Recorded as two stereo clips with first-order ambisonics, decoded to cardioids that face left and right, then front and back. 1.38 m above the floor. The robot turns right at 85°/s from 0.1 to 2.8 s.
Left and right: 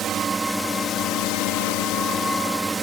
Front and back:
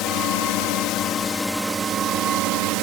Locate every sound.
0.0 s a drone: 35° right; by 2.8 s 165° right